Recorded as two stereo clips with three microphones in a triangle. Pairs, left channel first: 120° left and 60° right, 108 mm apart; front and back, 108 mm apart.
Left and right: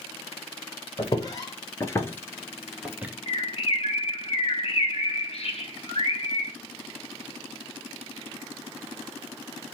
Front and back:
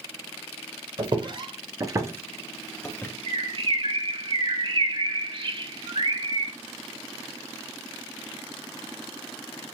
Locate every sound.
1.0 s footsteps: 160° left, 1.2 m; by 3.1 s 15° right, 0.7 m
3.3 s a bird: 145° left, 1.1 m